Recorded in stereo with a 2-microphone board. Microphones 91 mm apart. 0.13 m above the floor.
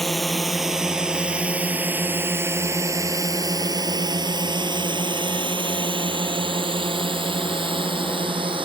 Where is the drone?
5° left (ahead or behind); by 8.7 s 70° right (ahead or behind).